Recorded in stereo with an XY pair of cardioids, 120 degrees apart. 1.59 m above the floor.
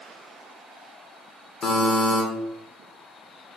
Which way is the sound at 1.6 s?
35° left.